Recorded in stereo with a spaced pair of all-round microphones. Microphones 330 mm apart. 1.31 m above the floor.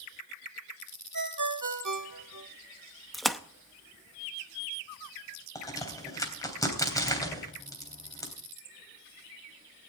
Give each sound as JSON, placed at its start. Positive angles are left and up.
{"t": 1.1, "sound": "a ringtone", "side_deg": -65, "distance_m": 1.9}
{"t": 3.1, "sound": "a splash", "side_deg": 0, "distance_m": 0.7}
{"t": 5.5, "sound": "a crack", "side_deg": 10, "distance_m": 3.0}